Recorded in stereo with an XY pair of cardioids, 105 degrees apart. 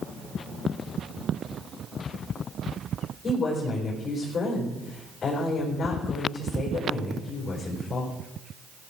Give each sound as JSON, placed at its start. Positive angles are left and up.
{"t": 3.2, "sound": "a woman speaking", "azimuth_deg": 40, "distance_m": 4.5}